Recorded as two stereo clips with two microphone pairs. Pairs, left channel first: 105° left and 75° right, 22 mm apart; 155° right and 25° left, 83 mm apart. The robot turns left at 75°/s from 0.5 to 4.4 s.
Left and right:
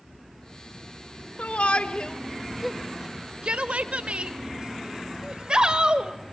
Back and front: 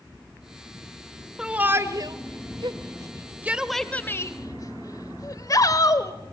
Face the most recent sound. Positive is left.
turn(degrees=-115)